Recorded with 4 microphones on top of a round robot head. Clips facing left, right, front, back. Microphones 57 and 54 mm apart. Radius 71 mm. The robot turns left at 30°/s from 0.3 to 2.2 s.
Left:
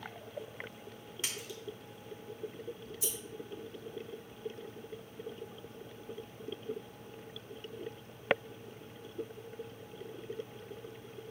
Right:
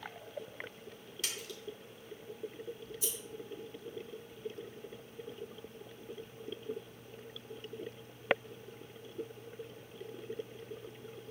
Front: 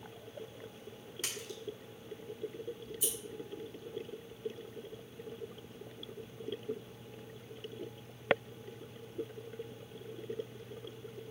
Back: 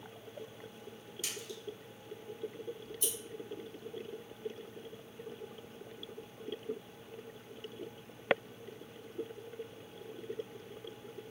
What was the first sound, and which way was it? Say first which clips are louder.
A splash: even, front 1 dB; 30° left.